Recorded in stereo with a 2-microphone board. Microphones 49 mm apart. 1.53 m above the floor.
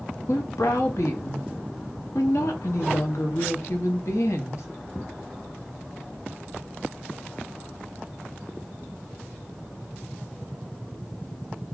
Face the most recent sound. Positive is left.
turn(degrees=80)